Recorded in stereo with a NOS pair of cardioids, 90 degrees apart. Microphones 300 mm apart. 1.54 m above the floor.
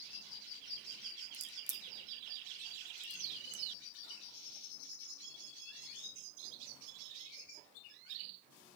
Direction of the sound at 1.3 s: 35° right.